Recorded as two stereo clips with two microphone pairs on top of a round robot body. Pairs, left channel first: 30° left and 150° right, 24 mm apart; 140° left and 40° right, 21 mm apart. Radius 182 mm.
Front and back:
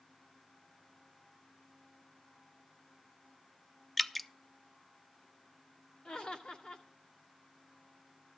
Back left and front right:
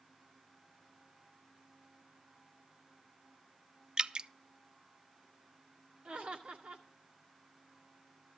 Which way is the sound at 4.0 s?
55° right.